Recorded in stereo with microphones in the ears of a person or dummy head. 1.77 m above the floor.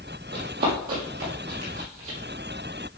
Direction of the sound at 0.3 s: 50° right (ahead or behind).